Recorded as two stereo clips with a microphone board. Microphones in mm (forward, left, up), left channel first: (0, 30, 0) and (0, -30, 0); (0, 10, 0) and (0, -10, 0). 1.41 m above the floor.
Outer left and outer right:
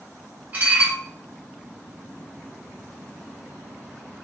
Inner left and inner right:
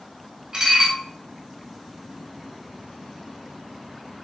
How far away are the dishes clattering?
About 1.2 m.